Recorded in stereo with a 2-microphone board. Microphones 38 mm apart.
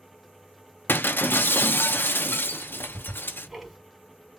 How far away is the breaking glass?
About 0.6 m.